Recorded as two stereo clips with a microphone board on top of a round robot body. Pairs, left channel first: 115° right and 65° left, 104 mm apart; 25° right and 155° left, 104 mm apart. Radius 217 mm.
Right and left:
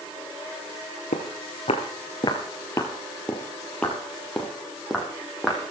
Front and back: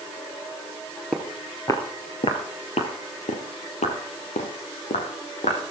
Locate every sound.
1.1 s footsteps: 110° right, 1.2 m; by 5.7 s 20° right, 3.5 m